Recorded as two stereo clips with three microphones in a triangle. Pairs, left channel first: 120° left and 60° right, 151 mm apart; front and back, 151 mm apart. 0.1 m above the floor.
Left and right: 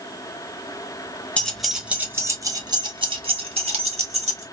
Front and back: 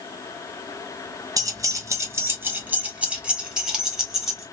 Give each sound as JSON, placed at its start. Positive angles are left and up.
{"t": 1.4, "sound": "keys jangling", "azimuth_deg": -170, "distance_m": 0.9}